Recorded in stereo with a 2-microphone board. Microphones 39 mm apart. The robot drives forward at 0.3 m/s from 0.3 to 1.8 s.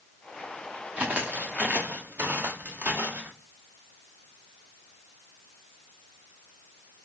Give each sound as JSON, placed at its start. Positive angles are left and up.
{"t": 1.0, "sound": "footsteps", "side_deg": -40, "distance_m": 1.0}